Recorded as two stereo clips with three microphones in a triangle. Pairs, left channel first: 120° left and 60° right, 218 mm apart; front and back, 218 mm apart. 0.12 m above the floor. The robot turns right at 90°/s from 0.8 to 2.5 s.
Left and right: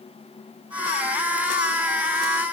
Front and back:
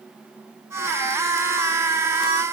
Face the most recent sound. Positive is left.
No sound to turn to.